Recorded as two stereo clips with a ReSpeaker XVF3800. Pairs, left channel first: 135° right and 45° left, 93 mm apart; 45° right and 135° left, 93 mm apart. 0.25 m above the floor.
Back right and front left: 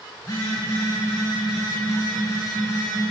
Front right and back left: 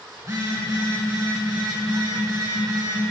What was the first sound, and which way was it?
A phone buzzing, 175° left.